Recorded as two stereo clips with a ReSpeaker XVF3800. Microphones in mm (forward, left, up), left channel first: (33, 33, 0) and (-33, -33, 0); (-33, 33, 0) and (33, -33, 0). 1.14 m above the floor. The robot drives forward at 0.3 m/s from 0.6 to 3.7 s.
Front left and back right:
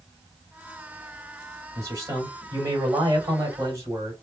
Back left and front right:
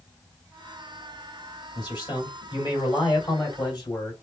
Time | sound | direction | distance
1.8 | a man speaking | 170° left | 2.5 m